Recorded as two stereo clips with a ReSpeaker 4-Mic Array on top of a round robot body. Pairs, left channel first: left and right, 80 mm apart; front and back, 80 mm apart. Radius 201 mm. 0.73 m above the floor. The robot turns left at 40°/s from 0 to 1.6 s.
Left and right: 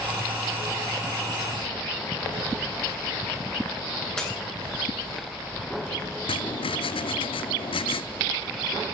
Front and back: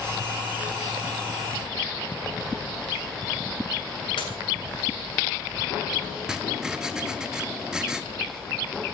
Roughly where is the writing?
Left.